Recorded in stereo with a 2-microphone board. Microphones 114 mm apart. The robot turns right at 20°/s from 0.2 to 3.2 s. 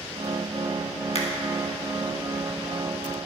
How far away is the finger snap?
About 1.5 m.